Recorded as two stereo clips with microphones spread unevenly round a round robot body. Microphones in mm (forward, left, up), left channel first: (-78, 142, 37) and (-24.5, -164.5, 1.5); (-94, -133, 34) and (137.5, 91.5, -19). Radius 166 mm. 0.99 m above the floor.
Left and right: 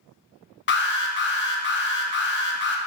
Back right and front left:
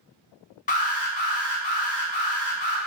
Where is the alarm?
155° left, 0.6 m.